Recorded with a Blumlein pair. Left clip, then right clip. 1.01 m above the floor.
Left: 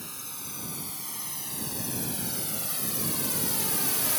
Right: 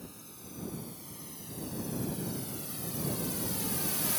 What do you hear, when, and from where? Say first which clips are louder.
0.0 s a drone: left 9 dB; 35° left; by 4.2 s 15° left